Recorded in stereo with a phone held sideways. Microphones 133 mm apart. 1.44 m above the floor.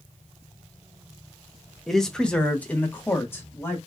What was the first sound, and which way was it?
A man speaking, centre (ahead or behind).